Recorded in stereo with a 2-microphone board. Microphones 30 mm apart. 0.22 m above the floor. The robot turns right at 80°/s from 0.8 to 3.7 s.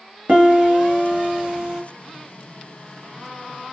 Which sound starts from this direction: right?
A piano, at 0.3 s.